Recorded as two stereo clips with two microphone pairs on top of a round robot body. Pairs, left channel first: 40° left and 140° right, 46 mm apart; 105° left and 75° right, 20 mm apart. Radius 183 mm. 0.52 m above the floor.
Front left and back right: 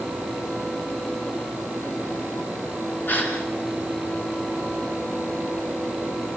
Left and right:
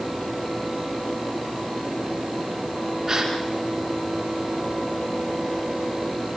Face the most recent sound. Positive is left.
turn(degrees=-10)